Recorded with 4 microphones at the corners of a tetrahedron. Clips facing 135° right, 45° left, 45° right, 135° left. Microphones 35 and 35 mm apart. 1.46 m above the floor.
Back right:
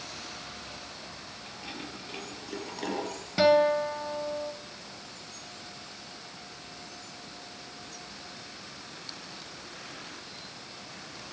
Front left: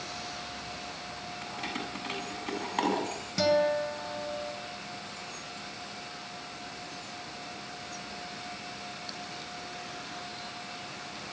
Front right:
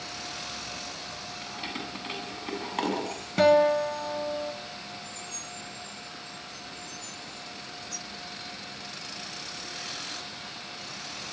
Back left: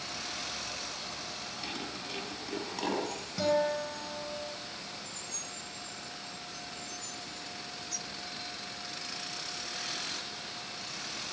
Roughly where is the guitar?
Right.